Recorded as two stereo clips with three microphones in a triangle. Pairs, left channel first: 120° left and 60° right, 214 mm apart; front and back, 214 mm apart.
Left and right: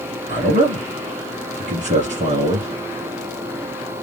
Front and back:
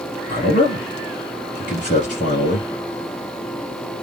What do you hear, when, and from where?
0.3 s a man speaking: 30° right, 1.3 m